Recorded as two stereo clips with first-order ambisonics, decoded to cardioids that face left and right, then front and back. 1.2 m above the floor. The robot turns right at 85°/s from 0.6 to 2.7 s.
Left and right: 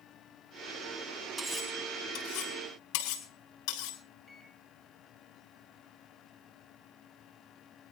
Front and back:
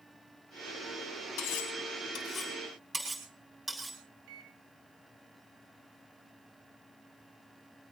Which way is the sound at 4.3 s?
170° left.